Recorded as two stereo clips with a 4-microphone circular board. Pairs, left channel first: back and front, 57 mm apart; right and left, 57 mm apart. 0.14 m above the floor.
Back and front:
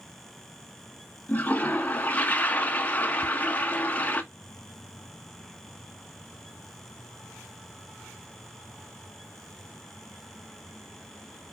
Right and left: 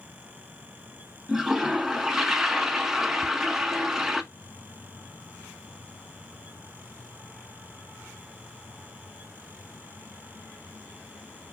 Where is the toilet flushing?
165° left, 0.7 m.